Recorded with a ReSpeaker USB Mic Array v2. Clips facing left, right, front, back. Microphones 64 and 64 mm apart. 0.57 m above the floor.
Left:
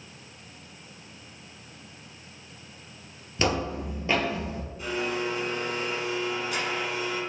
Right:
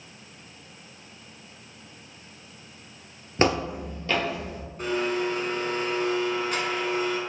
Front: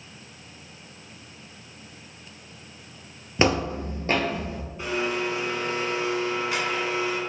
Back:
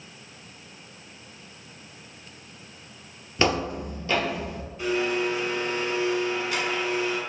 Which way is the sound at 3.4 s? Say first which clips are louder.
Right 3 dB, front 2 dB; 65° right.